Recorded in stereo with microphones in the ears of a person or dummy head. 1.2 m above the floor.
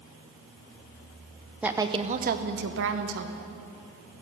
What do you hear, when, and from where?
1.6 s a woman speaking: 5° right (ahead or behind), 0.7 m; by 3.4 s 70° right (ahead or behind), 1.4 m